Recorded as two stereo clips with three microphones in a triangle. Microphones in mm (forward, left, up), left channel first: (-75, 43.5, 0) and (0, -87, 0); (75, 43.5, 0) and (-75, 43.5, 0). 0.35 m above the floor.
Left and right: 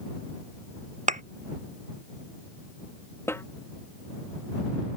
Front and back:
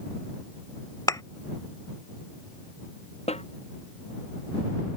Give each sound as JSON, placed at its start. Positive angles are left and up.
{"t": 1.1, "sound": "a thud", "azimuth_deg": -60}
{"t": 3.3, "sound": "a snare drum", "azimuth_deg": 45}